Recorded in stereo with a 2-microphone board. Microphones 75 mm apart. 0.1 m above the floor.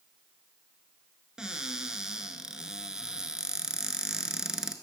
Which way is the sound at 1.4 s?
10° right (ahead or behind).